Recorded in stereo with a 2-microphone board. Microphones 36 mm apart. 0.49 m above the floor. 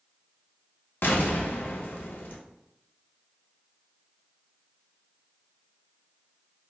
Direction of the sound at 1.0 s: 75° left (ahead or behind).